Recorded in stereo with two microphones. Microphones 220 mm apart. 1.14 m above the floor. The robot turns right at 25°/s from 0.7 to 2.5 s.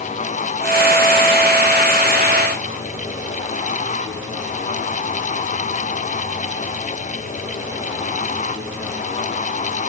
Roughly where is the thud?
No thud in this recording.